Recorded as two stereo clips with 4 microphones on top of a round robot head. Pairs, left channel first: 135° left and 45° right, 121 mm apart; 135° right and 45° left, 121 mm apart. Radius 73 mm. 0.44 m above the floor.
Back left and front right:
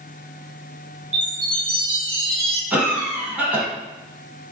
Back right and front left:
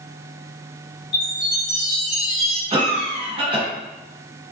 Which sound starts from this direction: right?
A chime, at 1.1 s.